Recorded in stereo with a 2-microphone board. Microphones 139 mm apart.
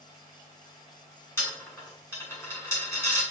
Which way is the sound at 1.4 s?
15° left (ahead or behind).